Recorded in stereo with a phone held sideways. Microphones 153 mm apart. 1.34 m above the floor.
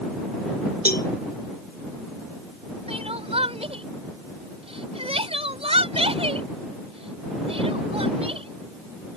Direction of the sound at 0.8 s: 80° left.